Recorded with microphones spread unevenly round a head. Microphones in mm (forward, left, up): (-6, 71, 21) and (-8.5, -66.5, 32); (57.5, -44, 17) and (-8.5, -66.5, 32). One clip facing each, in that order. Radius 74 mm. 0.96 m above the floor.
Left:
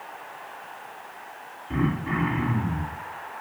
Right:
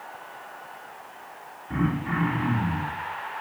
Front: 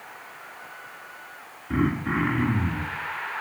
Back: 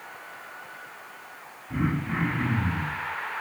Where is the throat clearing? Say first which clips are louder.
Left 1 dB, front 4 dB; straight ahead, 2.5 m.